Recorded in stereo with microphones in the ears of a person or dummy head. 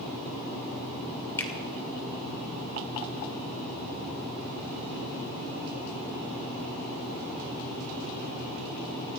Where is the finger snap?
20° left (ahead or behind), 2.5 m.